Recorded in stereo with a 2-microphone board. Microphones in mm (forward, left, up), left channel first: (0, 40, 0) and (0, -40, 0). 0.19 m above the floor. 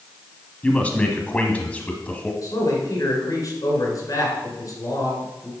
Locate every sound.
0.6 s a man speaking: 20° left (ahead or behind), 1.0 m
2.4 s a man speaking: 50° left (ahead or behind), 2.5 m